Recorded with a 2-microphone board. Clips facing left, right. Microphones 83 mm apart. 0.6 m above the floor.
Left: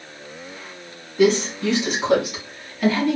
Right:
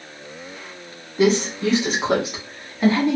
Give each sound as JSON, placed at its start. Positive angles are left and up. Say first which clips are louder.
{"t": 1.2, "sound": "a woman speaking", "louder": "left 1 dB", "side_deg": -35, "distance_m": 1.8}